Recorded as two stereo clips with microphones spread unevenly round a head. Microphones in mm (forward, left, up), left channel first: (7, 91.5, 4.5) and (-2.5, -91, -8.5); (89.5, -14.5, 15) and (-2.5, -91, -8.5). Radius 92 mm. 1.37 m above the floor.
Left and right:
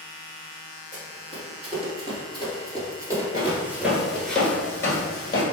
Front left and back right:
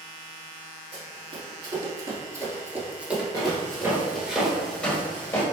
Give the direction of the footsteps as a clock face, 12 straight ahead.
5 o'clock.